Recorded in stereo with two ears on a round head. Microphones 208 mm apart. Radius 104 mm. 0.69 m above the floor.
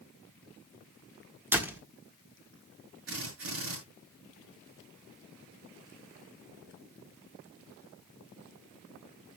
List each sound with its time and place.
1.5 s a door slam: 10° right (ahead or behind), 1.5 m
3.1 s a drill: 60° right (ahead or behind), 7 m